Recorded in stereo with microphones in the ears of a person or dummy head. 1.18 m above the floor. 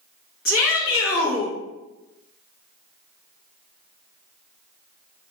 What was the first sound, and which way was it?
A shout, 75° left (ahead or behind).